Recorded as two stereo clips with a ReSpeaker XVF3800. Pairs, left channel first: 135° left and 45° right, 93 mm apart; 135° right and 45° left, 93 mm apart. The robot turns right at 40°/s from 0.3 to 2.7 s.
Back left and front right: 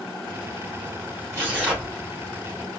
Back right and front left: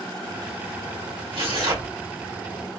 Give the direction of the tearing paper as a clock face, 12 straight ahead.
12 o'clock.